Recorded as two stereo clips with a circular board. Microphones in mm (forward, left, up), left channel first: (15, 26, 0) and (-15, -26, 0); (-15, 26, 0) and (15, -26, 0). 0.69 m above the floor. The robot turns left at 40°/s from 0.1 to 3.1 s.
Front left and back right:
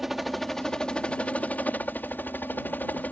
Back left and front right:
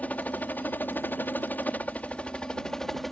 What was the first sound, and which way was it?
A helicopter, 155° left.